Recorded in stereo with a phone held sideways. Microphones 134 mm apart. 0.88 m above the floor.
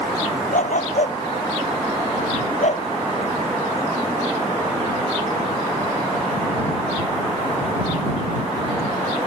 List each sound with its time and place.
0.5 s a dog barking: 70° left (ahead or behind); by 2.9 s 60° left (ahead or behind)